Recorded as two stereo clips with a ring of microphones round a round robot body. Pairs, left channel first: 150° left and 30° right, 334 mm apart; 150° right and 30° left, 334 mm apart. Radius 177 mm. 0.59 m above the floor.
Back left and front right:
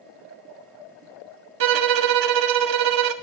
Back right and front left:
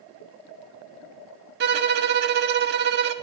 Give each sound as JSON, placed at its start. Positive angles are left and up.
{"t": 1.6, "sound": "a violin", "azimuth_deg": -25, "distance_m": 0.5}